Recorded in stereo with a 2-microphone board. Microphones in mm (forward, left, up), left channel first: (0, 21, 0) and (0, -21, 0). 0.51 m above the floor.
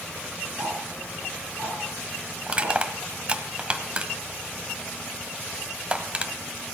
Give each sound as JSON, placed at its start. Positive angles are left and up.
{"t": 0.6, "sound": "ticking", "side_deg": -80, "distance_m": 9.0}
{"t": 2.5, "sound": "crushing", "side_deg": -25, "distance_m": 1.4}